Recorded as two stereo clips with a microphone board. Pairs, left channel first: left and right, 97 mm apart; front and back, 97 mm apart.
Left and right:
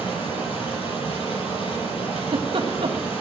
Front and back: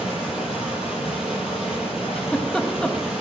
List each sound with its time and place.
0.0 s running water: 100° left, 8 m
2.2 s a giggle: 80° right, 1.2 m